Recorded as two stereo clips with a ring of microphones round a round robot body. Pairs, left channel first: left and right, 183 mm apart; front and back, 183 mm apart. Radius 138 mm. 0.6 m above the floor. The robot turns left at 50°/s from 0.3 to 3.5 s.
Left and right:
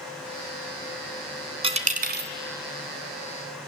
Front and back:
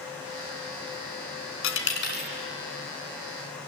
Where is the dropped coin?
30° right, 1.5 m; by 2.3 s 65° right, 1.5 m.